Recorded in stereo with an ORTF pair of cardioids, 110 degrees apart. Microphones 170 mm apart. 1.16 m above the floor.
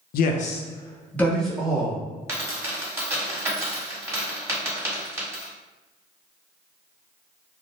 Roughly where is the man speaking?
Ahead left.